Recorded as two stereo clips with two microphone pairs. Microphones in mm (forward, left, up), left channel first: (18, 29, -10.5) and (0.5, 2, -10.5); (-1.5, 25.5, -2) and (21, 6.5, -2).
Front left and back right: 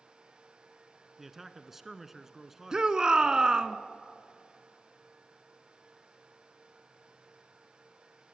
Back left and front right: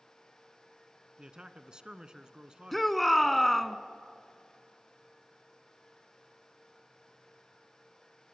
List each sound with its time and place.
1.2 s a man speaking: 55° right, 1.2 m
2.7 s a shout: 150° right, 1.1 m